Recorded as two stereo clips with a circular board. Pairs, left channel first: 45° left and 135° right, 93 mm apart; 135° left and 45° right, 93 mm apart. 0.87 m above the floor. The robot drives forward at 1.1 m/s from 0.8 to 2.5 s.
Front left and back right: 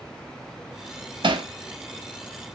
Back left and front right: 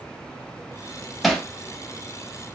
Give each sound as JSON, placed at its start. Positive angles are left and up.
{"t": 1.2, "sound": "hammering", "azimuth_deg": -135, "distance_m": 0.6}